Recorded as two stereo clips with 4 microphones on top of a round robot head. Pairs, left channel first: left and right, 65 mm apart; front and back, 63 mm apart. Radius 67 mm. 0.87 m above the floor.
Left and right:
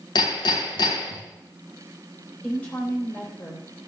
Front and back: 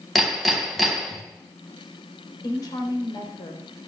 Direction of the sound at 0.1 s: 90° left.